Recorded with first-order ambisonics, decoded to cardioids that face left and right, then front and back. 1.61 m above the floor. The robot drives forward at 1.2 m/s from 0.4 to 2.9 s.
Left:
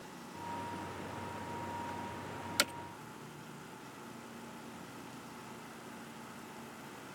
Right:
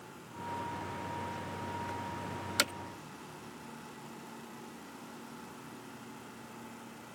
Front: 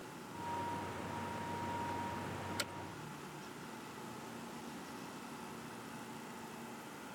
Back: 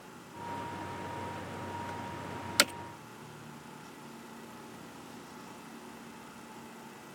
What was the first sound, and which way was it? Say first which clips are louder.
Hammering: right 2 dB, back 17 dB; 175° right.